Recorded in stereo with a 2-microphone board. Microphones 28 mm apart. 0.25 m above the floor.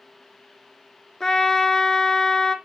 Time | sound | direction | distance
1.2 | a trumpet | 20° left (ahead or behind) | 0.7 m